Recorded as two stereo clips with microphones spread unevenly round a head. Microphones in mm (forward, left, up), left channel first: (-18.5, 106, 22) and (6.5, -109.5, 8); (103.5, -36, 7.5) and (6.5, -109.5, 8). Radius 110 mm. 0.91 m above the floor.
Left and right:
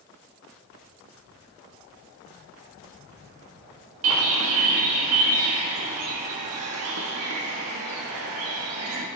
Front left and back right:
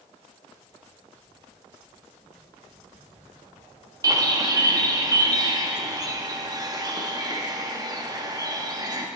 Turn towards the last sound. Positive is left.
turn(degrees=-85)